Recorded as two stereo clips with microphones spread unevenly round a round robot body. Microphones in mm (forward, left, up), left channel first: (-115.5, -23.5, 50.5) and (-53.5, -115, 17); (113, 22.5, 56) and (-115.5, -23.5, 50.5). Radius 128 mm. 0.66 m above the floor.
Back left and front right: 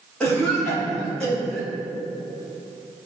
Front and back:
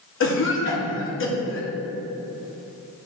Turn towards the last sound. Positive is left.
turn(degrees=30)